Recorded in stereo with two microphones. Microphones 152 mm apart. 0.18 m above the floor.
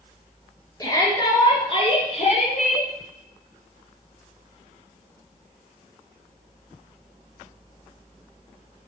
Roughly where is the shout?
Left.